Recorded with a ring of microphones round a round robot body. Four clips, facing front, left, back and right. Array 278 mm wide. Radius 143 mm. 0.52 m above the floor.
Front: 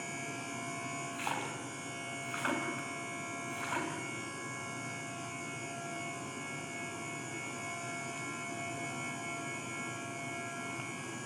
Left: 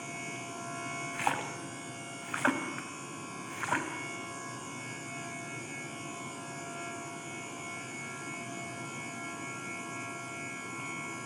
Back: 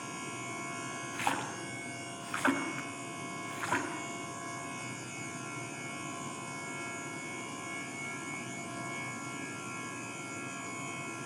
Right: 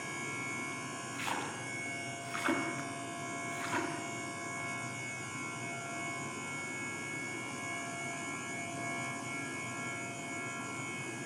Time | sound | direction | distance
1.1 | a splash | 115° left | 3.5 m